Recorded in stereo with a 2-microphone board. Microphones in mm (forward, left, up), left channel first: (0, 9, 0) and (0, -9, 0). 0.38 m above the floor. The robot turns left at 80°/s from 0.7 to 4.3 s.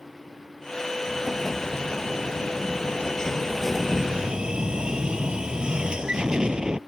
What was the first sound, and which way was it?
An explosion, 155° right.